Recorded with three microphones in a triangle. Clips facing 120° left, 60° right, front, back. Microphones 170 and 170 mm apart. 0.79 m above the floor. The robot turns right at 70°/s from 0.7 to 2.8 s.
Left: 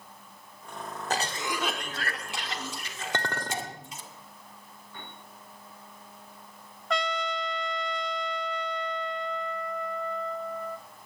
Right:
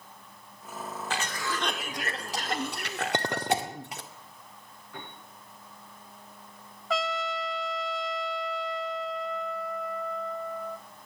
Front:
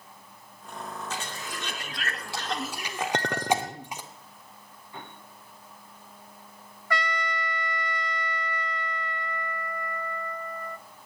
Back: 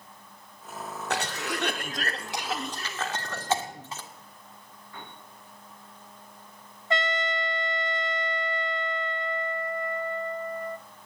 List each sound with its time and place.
1.1 s a cough: 165° left, 1.8 m; by 4.0 s 75° right, 1.8 m
3.1 s a clink: 10° left, 1.0 m
4.9 s a piano: 70° right, 8 m
6.9 s a trumpet: 145° right, 0.6 m